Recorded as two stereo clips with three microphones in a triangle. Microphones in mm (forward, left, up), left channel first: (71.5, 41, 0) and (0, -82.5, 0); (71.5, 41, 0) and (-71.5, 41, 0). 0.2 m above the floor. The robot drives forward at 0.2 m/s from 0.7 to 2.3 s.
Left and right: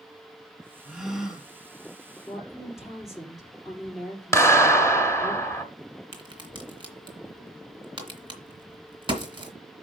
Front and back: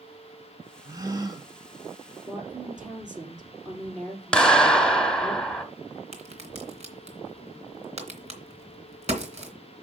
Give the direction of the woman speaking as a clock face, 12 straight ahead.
7 o'clock.